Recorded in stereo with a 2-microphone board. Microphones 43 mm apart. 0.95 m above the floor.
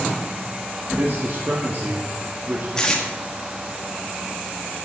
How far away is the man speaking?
About 1.6 m.